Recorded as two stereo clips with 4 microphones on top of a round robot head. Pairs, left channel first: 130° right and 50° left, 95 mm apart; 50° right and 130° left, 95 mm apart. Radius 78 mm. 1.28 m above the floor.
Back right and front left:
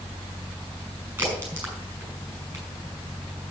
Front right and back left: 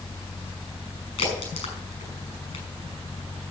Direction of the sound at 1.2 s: 25° right.